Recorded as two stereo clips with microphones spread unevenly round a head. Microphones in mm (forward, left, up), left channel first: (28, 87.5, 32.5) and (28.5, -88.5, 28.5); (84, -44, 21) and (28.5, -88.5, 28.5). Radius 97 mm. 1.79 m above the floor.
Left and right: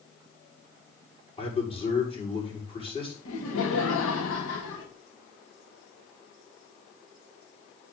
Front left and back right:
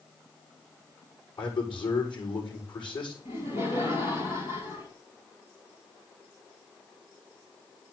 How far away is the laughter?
About 2.5 m.